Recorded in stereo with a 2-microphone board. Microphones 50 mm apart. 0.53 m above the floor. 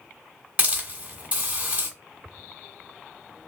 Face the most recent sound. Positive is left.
turn(degrees=-30)  # may be behind; listen again after turning